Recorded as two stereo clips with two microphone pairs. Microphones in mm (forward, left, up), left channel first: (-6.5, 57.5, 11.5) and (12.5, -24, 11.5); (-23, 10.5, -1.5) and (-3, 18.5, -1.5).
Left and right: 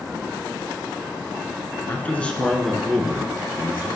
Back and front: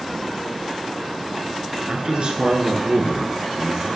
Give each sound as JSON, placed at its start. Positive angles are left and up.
{"t": 1.9, "sound": "a man speaking", "azimuth_deg": 45, "distance_m": 1.9}